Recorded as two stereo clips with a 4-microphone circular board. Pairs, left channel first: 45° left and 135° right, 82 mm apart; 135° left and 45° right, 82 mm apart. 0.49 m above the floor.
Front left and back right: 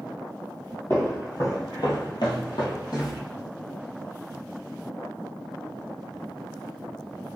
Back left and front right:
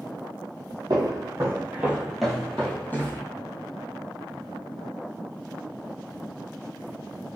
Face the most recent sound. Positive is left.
turn(degrees=75)